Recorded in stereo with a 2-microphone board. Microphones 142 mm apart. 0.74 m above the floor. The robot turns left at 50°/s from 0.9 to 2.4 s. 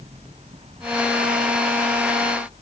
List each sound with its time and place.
Only background noise.